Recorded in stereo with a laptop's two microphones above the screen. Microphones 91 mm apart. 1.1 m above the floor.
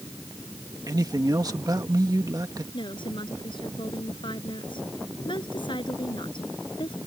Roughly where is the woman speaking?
Left.